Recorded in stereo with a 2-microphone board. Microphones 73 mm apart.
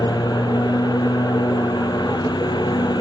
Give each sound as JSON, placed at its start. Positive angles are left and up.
{"t": 0.0, "sound": "a lawn mower", "side_deg": 70}